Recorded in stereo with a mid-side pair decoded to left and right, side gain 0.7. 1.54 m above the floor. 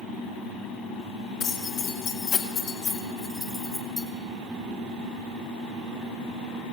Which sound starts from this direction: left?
Keys jangling, at 1.4 s.